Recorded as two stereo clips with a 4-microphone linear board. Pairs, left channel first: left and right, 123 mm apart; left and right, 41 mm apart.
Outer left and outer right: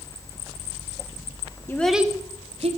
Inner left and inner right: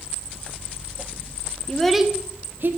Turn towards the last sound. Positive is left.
turn(degrees=-55)  # may be behind; listen again after turning